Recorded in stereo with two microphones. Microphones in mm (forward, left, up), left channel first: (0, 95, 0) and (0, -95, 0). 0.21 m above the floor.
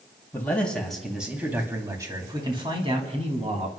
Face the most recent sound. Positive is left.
turn(degrees=-40)  # may be behind; listen again after turning